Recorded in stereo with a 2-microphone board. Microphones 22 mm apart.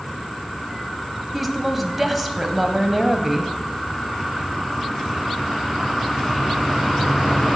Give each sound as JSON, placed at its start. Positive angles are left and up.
{"t": 1.3, "sound": "a woman speaking", "side_deg": -5, "distance_m": 1.0}